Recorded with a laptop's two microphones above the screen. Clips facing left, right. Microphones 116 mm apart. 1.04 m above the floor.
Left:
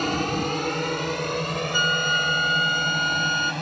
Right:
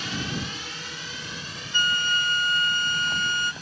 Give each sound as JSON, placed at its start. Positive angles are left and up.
{"t": 0.0, "sound": "a drone", "side_deg": 50}
{"t": 1.7, "sound": "a flute", "side_deg": 15}